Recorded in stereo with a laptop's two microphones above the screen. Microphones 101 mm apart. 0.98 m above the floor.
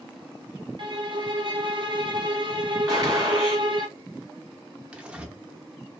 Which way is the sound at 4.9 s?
10° right (ahead or behind).